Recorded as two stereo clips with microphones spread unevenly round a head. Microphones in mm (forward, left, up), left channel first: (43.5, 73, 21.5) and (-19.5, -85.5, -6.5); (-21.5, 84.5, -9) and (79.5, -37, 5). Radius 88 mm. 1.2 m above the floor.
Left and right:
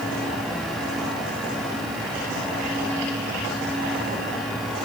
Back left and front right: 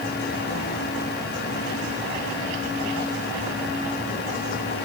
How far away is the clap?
No clap in this recording.